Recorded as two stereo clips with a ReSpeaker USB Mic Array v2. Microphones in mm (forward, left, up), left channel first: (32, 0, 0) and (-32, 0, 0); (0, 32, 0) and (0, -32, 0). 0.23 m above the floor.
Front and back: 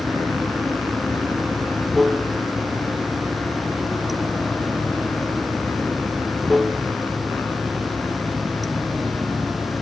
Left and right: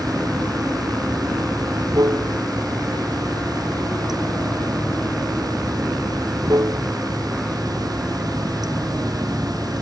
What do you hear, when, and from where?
0.0 s running water: 90° right